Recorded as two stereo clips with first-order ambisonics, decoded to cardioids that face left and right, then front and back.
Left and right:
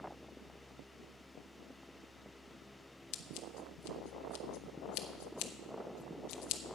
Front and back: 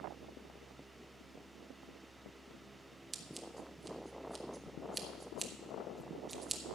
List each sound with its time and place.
3.1 s scissors: 105° left, 0.9 m